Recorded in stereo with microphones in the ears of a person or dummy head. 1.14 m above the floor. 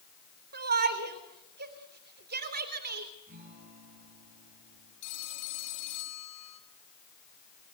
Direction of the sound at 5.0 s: 70° left (ahead or behind).